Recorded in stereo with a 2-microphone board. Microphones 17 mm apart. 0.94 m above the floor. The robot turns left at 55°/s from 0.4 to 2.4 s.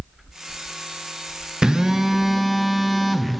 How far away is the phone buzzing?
About 0.6 m.